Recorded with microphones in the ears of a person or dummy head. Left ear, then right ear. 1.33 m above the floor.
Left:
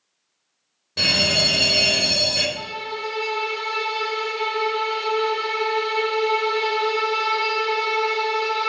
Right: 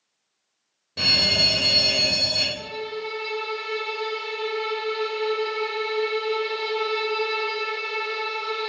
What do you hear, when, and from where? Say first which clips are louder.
1.0 s a fire alarm: left 1 dB; 15° left (ahead or behind), 3 m
2.6 s a violin: left 3 dB; 40° left (ahead or behind), 3.5 m